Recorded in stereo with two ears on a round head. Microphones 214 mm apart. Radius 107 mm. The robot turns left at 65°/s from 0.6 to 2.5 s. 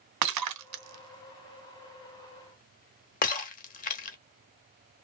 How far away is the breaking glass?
About 0.7 m.